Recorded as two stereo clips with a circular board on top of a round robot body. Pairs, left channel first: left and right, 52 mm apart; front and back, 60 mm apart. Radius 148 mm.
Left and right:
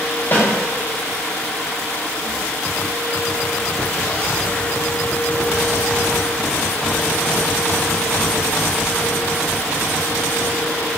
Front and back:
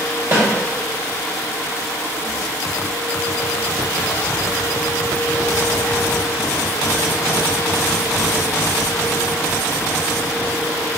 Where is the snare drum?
140° left, 2.0 m.